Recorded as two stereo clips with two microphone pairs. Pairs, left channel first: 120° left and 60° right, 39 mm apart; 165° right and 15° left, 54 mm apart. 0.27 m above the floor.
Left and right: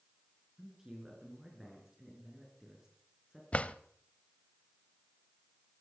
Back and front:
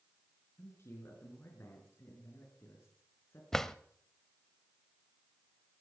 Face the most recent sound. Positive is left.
turn(degrees=120)